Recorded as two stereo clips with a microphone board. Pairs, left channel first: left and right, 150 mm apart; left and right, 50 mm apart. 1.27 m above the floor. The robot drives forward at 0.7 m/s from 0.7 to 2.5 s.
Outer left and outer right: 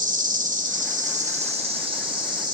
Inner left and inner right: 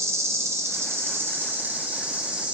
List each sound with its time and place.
0.0 s an insect: 60° right (ahead or behind), 0.9 m; by 2.5 s 30° right (ahead or behind), 1.7 m